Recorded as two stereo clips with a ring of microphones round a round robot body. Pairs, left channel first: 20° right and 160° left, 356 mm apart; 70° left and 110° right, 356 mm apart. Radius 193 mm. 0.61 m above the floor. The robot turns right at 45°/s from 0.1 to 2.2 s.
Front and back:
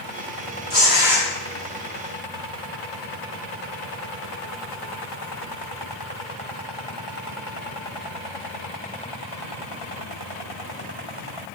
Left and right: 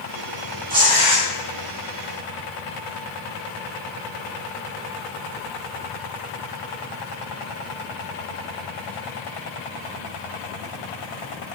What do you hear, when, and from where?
0.7 s tearing paper: 140° right, 5 m; by 1.2 s 115° right, 5 m